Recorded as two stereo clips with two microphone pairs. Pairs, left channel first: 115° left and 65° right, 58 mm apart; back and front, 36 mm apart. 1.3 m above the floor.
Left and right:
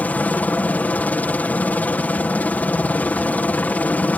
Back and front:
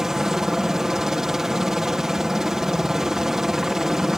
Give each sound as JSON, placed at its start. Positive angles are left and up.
{"t": 0.0, "sound": "a helicopter", "azimuth_deg": 70}